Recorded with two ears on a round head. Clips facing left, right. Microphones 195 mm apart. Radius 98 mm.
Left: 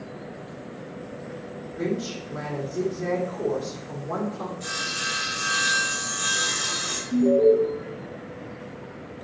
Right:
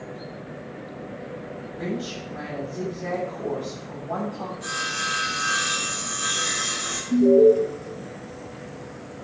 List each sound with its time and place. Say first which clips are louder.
1.8 s a woman speaking: left 3 dB; 35° left (ahead or behind), 3.5 m
4.6 s sawing: right 1 dB; 35° left (ahead or behind), 4 m
7.1 s an alarm: right 3 dB; 55° right (ahead or behind), 1.9 m